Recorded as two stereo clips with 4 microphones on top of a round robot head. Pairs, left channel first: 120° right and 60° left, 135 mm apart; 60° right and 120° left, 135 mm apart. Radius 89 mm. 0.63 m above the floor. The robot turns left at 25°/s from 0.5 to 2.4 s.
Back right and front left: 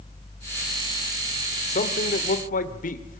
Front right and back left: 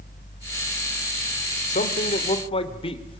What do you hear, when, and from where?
1.7 s a man speaking: 90° right, 1.8 m; by 3.2 s 105° right, 1.8 m